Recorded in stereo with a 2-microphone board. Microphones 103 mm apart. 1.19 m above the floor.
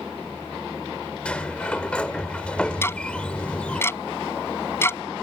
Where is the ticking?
25° left (ahead or behind).